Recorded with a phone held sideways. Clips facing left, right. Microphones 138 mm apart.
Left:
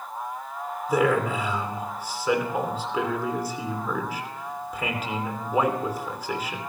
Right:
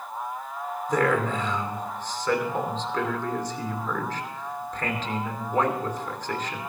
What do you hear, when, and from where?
0.9 s a man speaking: 10° left (ahead or behind), 3 m